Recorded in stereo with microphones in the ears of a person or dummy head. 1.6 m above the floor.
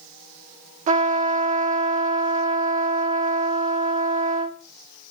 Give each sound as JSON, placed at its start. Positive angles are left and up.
{"t": 0.9, "sound": "a trumpet", "side_deg": -45, "distance_m": 0.8}